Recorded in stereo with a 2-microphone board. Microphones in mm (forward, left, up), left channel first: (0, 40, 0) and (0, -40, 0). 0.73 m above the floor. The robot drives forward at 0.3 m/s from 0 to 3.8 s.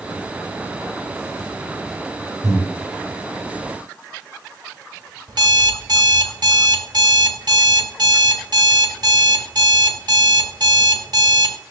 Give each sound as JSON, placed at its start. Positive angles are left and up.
{"t": 2.4, "sound": "breathing", "side_deg": -70, "distance_m": 2.5}
{"t": 5.3, "sound": "an alarm clock", "side_deg": -65, "distance_m": 1.2}